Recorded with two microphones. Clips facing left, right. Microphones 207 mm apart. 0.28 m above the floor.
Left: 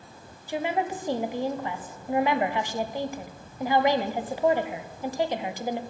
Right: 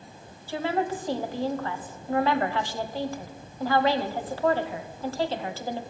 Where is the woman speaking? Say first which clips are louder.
Right 1 dB; 15° left (ahead or behind), 1.1 m.